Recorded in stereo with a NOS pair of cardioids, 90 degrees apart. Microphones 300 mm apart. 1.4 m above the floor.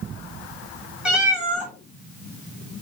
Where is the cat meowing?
5° right, 2 m.